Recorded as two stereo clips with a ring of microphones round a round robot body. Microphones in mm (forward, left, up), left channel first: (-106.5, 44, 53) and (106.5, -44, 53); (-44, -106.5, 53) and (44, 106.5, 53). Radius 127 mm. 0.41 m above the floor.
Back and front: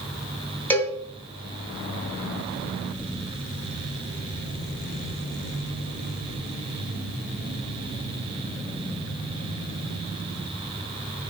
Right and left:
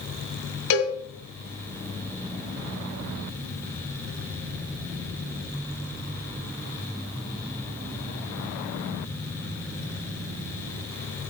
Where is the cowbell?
120° right, 2 m.